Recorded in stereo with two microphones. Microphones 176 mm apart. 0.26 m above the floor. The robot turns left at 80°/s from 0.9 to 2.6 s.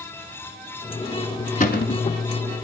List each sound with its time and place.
1.6 s a cupboard door: 125° left, 1.1 m; by 2.1 s 90° left, 1.1 m